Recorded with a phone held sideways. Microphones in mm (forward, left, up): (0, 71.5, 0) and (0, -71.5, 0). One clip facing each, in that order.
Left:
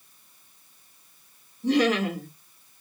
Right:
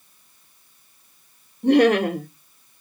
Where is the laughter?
55° right (ahead or behind), 1.6 m.